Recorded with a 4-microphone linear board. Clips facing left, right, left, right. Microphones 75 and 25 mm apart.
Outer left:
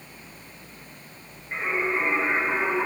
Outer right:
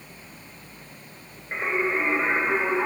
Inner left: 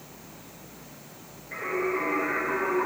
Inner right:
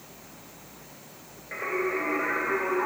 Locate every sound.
1.5 s singing: 35° right (ahead or behind), 1.9 m